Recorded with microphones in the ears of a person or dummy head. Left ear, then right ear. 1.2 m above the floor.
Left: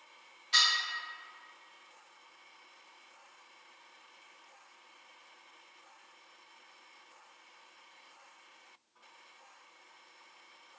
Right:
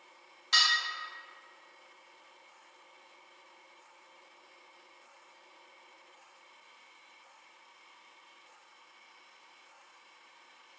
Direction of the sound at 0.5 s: 50° right (ahead or behind).